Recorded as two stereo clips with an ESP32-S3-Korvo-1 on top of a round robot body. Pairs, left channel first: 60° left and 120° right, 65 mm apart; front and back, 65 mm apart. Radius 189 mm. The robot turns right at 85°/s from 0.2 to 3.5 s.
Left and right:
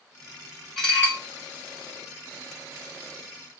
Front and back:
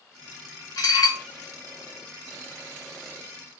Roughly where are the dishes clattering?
Ahead right.